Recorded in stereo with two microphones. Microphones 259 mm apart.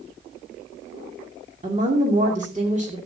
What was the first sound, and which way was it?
A woman speaking, 25° right (ahead or behind).